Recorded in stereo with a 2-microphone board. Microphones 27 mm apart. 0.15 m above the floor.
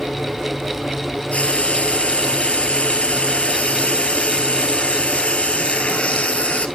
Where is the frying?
50° left (ahead or behind), 1.2 m.